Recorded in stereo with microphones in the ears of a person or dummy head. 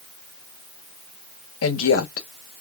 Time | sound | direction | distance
1.6 | a woman speaking | 85° left | 1.3 m